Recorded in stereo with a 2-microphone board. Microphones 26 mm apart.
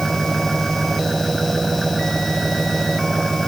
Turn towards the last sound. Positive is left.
turn(degrees=0)  # may be behind; listen again after turning